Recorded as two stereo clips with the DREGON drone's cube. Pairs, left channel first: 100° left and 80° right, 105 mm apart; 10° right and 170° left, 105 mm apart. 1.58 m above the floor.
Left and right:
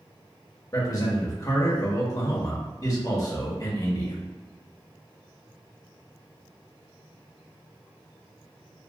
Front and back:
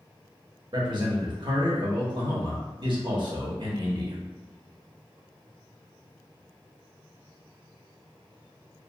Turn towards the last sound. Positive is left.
turn(degrees=145)